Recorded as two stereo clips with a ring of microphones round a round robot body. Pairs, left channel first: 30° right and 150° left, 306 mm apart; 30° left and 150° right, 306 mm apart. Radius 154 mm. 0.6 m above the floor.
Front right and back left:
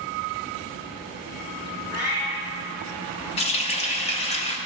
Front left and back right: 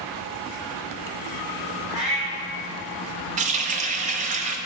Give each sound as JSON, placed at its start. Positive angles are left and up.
{"t": 1.9, "sound": "a cat meowing", "azimuth_deg": -60, "distance_m": 2.5}
{"t": 3.4, "sound": "a running tap", "azimuth_deg": -90, "distance_m": 0.5}